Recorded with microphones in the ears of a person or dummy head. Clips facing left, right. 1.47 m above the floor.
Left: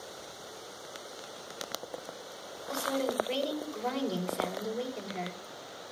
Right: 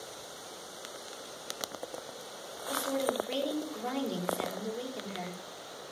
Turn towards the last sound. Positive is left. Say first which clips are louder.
# even
turn(degrees=0)  # may be behind; listen again after turning